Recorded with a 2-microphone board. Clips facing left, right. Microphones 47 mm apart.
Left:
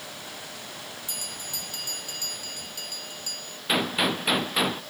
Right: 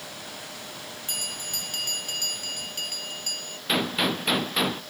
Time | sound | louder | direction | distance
1.1 | a bell | right 3 dB | 55° right (ahead or behind) | ?
3.7 | a gunshot | even | 10° left (ahead or behind) | ?